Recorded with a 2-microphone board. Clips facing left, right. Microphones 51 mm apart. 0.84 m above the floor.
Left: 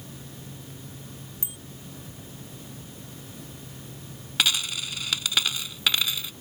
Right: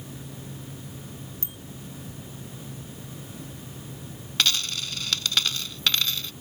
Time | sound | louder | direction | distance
1.4 | a bicycle bell | right 1 dB | 15° left (ahead or behind) | ?
4.4 | a dropped coin | even | 15° left (ahead or behind) | ?